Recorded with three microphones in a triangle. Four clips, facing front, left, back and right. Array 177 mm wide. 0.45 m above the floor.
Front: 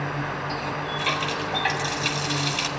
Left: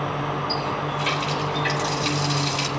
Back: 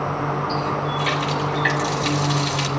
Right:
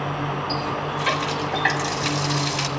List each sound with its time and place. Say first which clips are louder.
0.5 s a running tap: even, back 6 dB; 70° right, 1.7 m